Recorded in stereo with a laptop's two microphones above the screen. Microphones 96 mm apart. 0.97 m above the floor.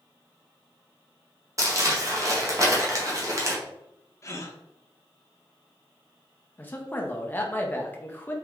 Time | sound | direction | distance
1.6 | crumpling | 35° right (ahead or behind) | 0.8 m
4.2 | a gasp | 35° left (ahead or behind) | 0.7 m
6.6 | a man speaking | 20° left (ahead or behind) | 0.6 m